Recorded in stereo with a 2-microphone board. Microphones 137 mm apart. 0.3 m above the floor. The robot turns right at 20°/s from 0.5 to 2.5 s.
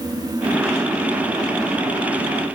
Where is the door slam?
I don't hear a door slam.